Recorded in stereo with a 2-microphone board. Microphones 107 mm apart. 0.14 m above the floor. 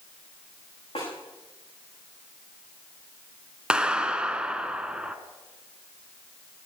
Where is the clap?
10° right (ahead or behind), 1.0 m.